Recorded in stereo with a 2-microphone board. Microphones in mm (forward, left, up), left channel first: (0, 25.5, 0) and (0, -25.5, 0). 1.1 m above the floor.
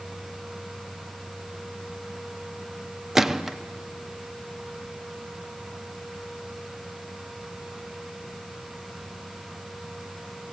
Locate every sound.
3.1 s a gunshot: 5° right (ahead or behind), 0.5 m